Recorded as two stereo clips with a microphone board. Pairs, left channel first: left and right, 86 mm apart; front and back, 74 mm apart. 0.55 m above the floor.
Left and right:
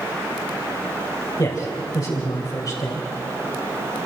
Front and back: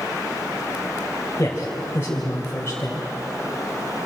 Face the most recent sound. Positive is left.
turn(degrees=55)